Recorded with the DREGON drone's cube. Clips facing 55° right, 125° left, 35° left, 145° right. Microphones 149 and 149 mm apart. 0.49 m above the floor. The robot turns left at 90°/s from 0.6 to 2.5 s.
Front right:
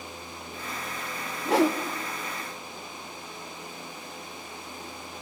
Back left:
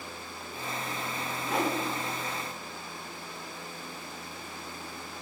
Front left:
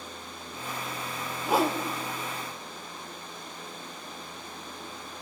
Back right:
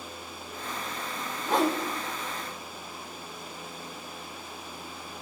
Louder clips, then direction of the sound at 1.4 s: Front right 8 dB, even; 40° right.